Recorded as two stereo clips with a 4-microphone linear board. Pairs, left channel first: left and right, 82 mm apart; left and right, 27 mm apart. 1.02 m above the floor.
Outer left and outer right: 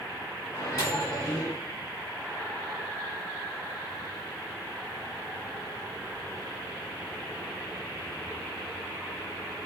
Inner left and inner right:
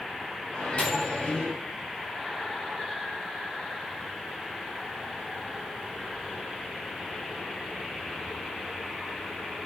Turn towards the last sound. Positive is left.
turn(degrees=55)  # may be behind; listen again after turning